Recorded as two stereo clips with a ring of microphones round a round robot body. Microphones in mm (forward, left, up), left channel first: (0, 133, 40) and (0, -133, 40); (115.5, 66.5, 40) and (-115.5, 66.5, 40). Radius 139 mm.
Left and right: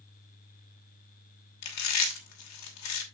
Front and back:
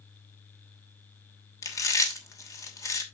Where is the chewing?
75° left, 2.5 m.